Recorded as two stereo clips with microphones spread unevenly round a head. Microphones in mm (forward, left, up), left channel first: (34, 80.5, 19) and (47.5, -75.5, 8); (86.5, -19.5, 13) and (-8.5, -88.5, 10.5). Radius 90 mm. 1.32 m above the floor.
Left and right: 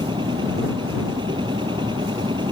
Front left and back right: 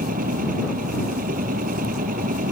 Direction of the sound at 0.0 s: 155° right.